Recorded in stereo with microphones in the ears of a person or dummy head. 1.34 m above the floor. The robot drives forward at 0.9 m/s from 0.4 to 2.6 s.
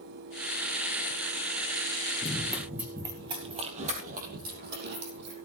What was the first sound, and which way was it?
Running footsteps, 15° left (ahead or behind).